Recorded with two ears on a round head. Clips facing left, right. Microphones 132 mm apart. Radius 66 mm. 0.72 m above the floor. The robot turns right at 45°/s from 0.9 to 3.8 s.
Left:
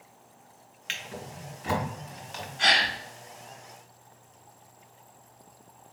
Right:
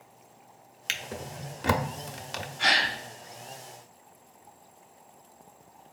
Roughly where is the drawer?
Right.